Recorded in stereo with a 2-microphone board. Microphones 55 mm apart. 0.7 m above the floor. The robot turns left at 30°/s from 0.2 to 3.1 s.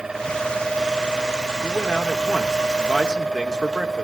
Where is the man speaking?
25° left, 2 m; by 4.0 s 15° right, 2 m.